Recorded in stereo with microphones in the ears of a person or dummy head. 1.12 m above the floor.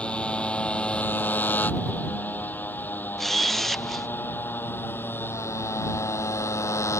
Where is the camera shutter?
Centre (ahead or behind).